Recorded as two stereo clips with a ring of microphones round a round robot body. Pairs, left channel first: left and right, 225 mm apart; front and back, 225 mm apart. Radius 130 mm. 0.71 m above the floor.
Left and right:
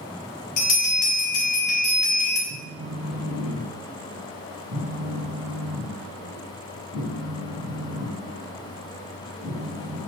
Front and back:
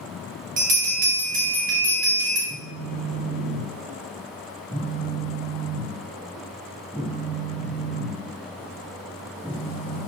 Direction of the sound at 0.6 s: 135° left.